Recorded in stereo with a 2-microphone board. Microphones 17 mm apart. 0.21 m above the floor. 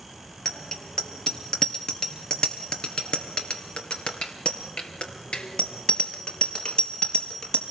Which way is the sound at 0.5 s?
30° left (ahead or behind).